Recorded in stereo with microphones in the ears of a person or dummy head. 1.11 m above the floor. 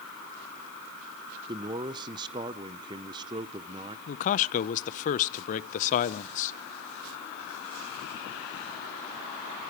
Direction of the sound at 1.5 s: 20° right (ahead or behind).